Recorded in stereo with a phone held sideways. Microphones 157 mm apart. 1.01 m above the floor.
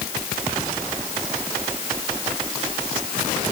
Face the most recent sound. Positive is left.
No sound to turn to.